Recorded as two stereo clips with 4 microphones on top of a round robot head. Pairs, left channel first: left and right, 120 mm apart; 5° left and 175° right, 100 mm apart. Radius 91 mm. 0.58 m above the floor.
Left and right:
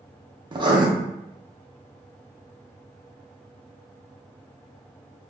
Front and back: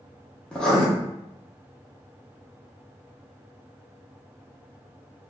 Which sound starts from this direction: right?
Writing, at 0.5 s.